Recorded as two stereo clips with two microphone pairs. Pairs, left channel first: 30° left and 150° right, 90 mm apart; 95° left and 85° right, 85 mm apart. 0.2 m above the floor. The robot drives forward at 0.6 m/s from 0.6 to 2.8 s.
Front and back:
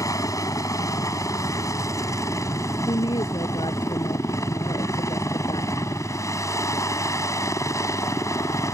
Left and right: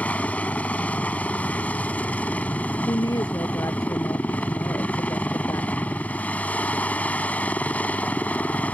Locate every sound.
0.0 s a helicopter: 30° left
2.9 s a woman speaking: 50° left